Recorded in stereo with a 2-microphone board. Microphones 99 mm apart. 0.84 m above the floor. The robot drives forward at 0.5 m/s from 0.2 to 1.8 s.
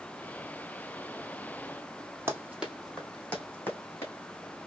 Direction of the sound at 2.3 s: 25° right (ahead or behind).